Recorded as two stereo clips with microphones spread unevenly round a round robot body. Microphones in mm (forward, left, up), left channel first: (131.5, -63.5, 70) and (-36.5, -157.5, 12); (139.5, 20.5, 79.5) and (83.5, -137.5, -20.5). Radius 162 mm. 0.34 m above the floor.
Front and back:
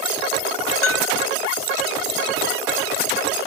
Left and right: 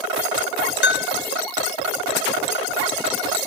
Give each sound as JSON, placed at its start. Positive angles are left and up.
{"t": 0.8, "sound": "a bell", "azimuth_deg": 25, "distance_m": 0.7}